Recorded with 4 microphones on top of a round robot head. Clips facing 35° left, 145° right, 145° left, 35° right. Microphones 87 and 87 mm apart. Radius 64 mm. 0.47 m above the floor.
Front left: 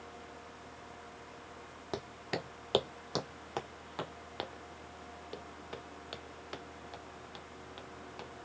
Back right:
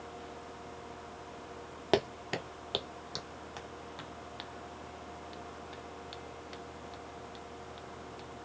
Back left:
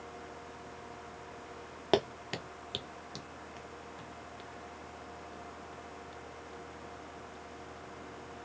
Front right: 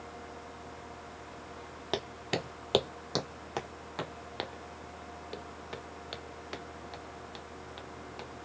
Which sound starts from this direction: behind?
Footsteps, at 1.9 s.